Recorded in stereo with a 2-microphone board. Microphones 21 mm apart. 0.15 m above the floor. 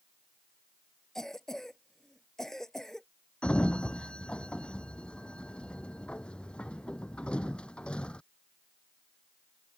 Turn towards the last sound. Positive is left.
turn(degrees=55)  # may be behind; listen again after turning